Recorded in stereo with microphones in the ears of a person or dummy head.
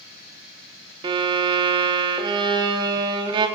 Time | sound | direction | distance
1.0 | a violin | 25° right (ahead or behind) | 0.9 m